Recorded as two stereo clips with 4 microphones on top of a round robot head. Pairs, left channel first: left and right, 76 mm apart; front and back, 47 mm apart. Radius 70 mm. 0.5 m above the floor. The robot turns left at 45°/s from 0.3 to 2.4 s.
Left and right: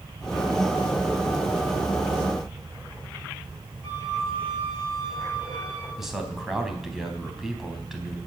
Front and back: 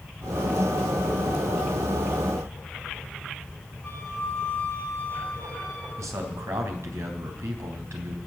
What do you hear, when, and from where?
3.8 s a flute: 85° right, 7.5 m
6.0 s a man speaking: 175° right, 3.5 m